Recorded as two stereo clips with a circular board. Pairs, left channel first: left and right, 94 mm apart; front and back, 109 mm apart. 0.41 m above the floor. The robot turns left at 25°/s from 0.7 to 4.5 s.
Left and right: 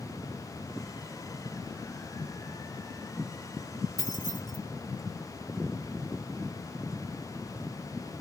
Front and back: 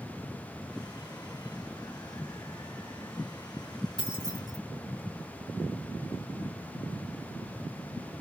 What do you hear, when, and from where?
4.0 s keys jangling: 140° left, 2.5 m; by 4.6 s 130° left, 2.5 m